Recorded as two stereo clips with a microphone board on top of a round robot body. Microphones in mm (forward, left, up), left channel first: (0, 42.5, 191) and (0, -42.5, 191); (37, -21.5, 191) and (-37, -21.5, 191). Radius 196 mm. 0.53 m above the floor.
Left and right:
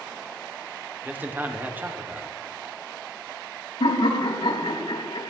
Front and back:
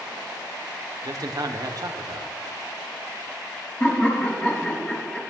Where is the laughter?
75° left, 5 m.